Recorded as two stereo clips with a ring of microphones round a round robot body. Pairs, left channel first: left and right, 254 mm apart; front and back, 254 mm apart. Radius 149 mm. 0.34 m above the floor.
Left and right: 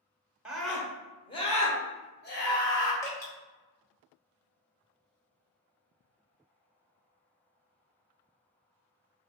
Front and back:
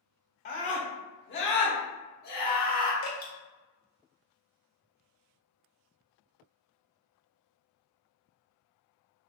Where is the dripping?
15° left, 2.0 m.